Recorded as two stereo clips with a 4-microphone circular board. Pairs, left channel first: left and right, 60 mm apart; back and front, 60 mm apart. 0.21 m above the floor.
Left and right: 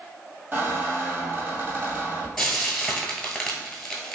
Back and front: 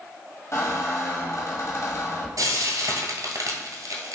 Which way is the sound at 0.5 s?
145° right.